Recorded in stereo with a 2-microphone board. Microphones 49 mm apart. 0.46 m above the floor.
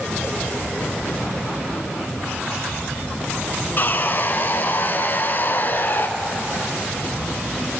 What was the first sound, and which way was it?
Sawing, 45° left (ahead or behind).